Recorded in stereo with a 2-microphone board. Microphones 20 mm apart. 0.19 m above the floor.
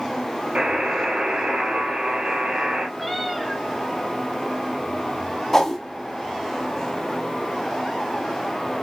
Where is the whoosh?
20° left (ahead or behind), 1.0 m.